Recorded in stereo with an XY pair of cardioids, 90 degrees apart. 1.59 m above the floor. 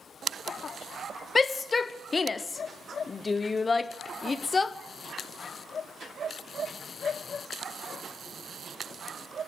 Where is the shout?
35° left, 0.9 m.